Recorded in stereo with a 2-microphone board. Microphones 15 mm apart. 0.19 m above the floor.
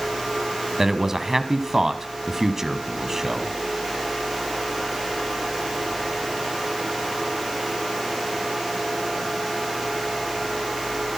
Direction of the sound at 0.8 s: 25° right (ahead or behind).